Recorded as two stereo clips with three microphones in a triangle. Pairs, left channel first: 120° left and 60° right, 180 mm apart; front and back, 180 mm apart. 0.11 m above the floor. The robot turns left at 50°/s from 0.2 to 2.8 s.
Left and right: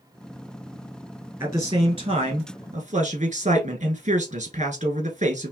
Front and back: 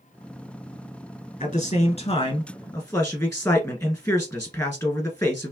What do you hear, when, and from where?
1.4 s a man speaking: 10° left, 1.5 m; by 5.5 s 60° right, 1.5 m